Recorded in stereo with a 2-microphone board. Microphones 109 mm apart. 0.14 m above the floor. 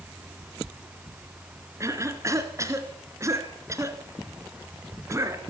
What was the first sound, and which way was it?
A cough, 30° right (ahead or behind).